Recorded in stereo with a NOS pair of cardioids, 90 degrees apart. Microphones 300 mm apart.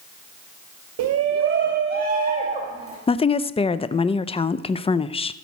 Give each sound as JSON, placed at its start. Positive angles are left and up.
{"t": 1.0, "sound": "a shout", "azimuth_deg": -65, "distance_m": 0.8}
{"t": 3.1, "sound": "a woman speaking", "azimuth_deg": 20, "distance_m": 0.5}